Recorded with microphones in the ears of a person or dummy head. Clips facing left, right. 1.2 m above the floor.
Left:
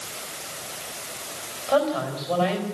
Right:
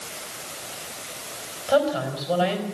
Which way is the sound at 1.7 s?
15° right (ahead or behind).